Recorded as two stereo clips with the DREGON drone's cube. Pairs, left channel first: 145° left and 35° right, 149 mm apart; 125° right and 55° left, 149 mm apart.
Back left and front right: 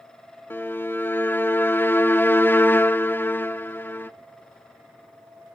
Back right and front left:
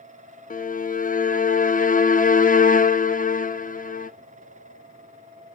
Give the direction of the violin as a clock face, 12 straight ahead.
5 o'clock.